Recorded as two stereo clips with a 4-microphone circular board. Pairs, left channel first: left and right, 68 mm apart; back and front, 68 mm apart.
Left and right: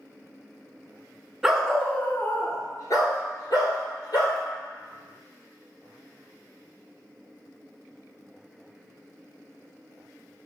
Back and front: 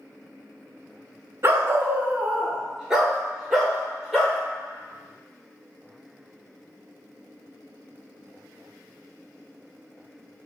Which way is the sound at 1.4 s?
10° right.